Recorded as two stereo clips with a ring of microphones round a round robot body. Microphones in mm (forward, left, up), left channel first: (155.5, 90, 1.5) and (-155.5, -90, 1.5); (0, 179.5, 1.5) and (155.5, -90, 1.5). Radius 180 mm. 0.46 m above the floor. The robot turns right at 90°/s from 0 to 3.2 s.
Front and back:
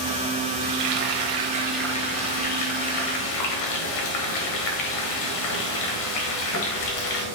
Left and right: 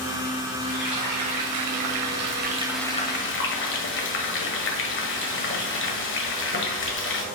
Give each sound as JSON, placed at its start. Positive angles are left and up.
{"t": 0.6, "sound": "frying", "azimuth_deg": -165, "distance_m": 1.5}